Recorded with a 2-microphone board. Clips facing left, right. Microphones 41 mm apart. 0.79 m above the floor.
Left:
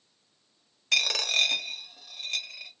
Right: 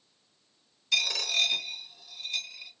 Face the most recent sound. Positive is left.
turn(degrees=60)  # may be behind; listen again after turning